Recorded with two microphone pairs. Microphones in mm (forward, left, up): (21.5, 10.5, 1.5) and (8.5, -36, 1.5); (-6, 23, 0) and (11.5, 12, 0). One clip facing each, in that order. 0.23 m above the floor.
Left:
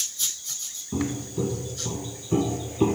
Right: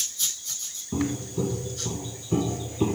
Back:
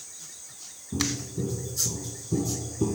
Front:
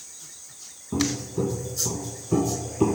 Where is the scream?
No scream in this recording.